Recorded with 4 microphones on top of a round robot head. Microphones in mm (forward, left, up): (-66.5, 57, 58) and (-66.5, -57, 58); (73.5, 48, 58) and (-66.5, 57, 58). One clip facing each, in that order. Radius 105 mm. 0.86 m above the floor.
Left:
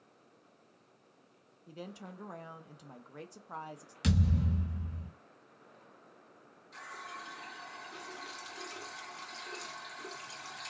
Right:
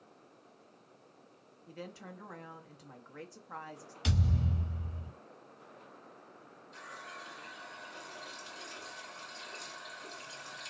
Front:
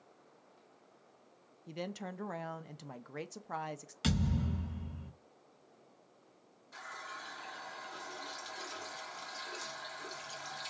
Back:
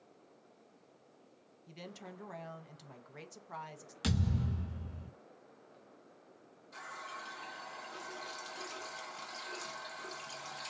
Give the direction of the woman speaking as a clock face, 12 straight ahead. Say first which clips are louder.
Even, front 8 dB; 11 o'clock.